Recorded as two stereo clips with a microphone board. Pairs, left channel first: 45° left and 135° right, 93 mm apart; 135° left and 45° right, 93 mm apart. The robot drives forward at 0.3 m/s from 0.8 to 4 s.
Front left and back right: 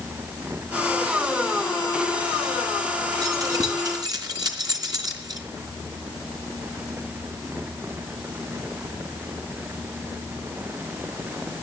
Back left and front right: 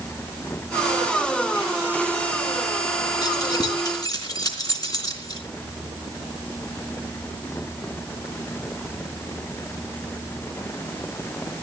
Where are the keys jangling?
Straight behind, 3 m.